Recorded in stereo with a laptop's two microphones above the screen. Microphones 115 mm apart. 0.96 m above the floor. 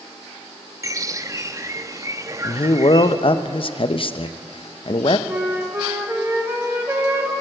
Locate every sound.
0.8 s a bird: 25° right (ahead or behind), 0.5 m
2.4 s a man speaking: 50° left (ahead or behind), 0.6 m
5.3 s a flute: 20° right (ahead or behind), 1.1 m